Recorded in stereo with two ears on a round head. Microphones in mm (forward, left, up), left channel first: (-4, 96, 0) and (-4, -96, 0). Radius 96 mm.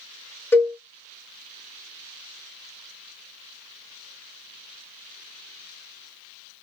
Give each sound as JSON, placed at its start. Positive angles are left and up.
{"t": 0.5, "sound": "a cowbell", "side_deg": 10, "distance_m": 1.0}